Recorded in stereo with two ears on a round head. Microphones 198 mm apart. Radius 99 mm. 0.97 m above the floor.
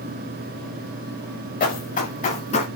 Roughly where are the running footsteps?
Left.